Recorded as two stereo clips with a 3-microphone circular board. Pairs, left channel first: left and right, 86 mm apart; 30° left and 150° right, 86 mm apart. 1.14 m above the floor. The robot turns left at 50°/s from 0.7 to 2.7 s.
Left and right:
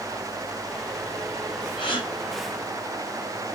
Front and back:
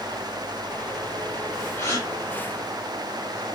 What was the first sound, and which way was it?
A gasp, 95° left.